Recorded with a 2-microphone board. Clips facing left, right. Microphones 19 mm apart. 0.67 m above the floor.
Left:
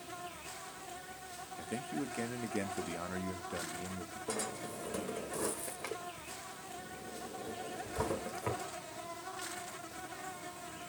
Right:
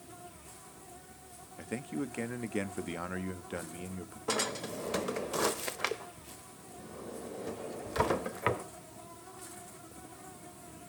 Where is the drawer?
60° right (ahead or behind), 0.6 m.